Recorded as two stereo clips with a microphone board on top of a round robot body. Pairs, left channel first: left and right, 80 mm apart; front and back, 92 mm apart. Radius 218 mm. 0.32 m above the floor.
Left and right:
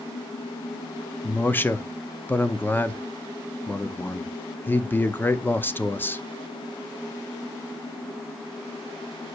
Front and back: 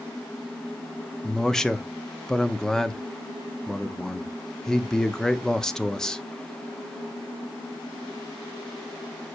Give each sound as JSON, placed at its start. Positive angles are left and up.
{"t": 1.2, "sound": "a man speaking", "azimuth_deg": 75, "distance_m": 1.0}